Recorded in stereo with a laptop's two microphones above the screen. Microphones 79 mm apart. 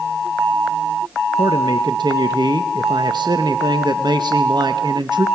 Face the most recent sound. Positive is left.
turn(degrees=-70)  # may be behind; listen again after turning